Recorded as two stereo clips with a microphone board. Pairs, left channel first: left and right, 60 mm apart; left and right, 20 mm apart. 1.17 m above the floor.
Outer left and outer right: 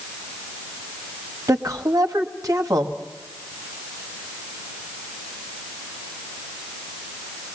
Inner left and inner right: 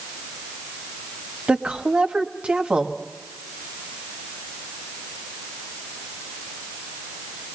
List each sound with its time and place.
1.5 s a woman speaking: 75° right (ahead or behind), 1.6 m